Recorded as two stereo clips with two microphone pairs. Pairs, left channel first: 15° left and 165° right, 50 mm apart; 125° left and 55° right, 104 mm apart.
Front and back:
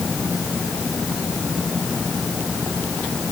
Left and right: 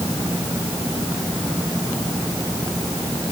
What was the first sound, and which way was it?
Only background noise.